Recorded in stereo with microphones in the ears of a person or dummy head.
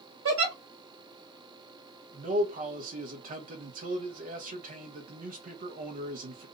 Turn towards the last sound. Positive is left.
turn(degrees=-40)  # may be behind; listen again after turning